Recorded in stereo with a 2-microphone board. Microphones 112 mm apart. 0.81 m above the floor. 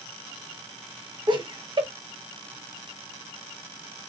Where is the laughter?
45° right (ahead or behind), 0.9 m.